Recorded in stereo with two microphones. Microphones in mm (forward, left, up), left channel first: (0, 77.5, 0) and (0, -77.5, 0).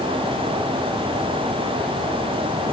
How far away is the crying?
No crying in this recording.